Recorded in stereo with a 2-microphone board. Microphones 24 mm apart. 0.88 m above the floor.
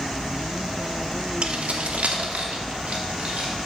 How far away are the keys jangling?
About 1.0 m.